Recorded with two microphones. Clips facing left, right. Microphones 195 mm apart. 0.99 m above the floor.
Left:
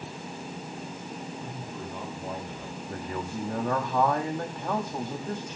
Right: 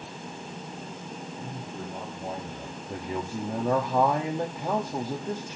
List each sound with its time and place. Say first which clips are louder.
1.4 s a man speaking: even; 40° right (ahead or behind), 4.5 m
2.9 s a man speaking: right 2 dB; 15° right (ahead or behind), 1.3 m